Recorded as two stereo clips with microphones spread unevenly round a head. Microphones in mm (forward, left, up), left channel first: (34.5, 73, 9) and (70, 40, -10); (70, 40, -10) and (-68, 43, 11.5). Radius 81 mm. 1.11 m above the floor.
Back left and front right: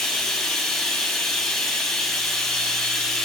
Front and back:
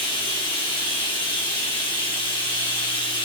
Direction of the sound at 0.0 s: 55° left.